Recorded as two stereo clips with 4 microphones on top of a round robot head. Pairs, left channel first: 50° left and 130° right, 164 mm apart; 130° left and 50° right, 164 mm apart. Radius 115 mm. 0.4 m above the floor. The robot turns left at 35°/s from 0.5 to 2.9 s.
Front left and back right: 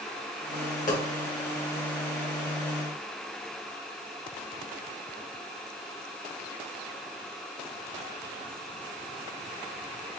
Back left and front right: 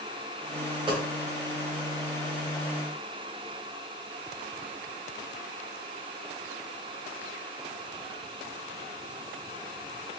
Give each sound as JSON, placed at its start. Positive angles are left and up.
{"t": 0.9, "sound": "a dropped coin", "azimuth_deg": 15, "distance_m": 1.1}